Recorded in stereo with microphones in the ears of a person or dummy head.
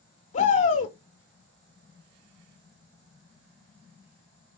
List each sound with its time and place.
0.3 s a shout: 40° left (ahead or behind), 1.1 m